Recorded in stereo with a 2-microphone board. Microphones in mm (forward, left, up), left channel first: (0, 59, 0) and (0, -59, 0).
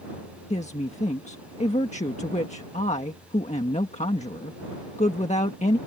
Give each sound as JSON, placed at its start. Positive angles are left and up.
{"t": 0.5, "sound": "a woman speaking", "side_deg": 75}